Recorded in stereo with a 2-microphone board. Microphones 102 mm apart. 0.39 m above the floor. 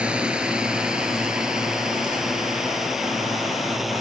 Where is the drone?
10° right (ahead or behind); by 4.0 s centre (ahead or behind).